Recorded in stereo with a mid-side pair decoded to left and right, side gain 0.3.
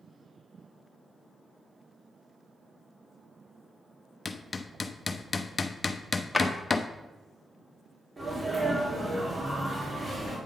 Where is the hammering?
50° left, 0.6 m.